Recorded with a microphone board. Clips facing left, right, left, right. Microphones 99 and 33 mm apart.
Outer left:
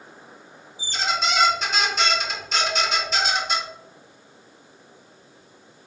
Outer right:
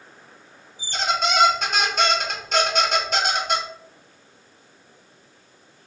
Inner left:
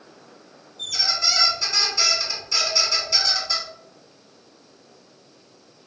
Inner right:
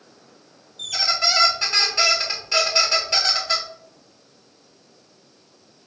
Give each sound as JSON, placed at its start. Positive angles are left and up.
{"t": 0.8, "sound": "a squeak", "side_deg": -50, "distance_m": 0.8}